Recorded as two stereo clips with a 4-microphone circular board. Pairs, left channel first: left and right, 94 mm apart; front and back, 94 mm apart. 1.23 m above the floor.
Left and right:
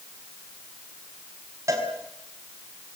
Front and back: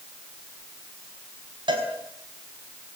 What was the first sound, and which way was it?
A cowbell, 145° right.